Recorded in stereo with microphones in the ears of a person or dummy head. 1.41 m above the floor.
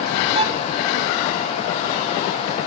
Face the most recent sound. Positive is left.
turn(degrees=-35)  # may be behind; listen again after turning